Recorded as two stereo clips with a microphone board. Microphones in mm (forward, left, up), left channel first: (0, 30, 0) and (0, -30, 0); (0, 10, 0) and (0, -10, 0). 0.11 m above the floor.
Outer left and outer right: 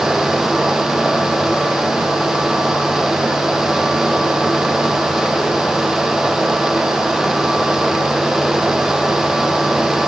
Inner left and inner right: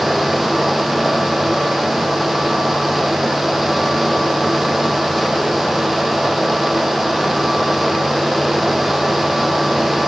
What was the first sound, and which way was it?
Only background noise.